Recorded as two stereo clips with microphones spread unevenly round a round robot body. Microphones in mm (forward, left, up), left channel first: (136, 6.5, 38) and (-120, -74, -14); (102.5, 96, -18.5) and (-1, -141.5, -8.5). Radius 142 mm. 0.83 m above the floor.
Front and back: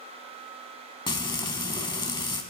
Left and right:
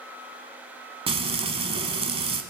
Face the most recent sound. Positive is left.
turn(degrees=-50)